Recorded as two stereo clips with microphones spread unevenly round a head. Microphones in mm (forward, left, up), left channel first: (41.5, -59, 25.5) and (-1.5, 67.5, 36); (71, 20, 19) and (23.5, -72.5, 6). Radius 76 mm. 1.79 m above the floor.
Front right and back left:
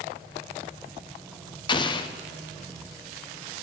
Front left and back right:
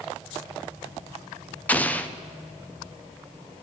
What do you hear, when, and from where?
1.7 s an explosion: 15° right, 0.8 m